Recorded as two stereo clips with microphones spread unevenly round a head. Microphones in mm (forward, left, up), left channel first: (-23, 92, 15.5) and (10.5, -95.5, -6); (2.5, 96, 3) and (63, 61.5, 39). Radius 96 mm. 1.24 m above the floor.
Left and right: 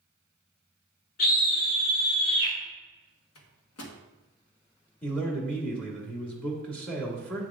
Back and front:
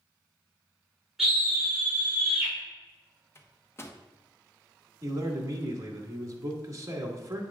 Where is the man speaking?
15° left, 2 m.